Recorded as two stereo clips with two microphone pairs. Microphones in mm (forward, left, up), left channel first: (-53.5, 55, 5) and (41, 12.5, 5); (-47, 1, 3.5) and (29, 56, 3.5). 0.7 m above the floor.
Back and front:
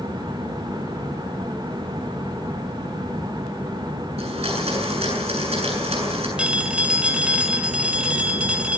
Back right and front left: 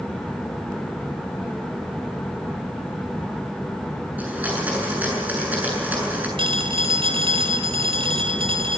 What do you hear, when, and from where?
4.2 s a blender: 35° right, 7.5 m
6.4 s a phone ringing: 55° left, 2.5 m